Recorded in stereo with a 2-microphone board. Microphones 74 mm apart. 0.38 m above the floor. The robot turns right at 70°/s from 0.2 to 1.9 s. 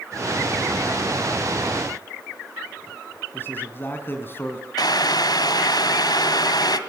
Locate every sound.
3.3 s a man speaking: 30° left (ahead or behind), 3.5 m
4.8 s boiling: 65° left (ahead or behind), 1.8 m